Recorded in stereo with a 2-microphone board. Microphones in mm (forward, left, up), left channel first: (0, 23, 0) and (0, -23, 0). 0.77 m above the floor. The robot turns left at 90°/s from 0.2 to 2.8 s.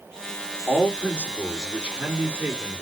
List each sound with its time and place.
0.7 s a man speaking: 75° left, 1.9 m; by 2.8 s 115° right, 1.9 m